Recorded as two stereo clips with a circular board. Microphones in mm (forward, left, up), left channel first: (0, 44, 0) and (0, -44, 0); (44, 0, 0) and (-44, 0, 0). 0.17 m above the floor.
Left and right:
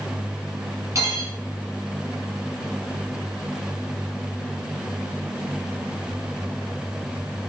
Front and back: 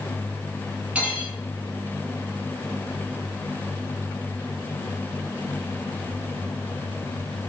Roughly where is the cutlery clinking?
Right.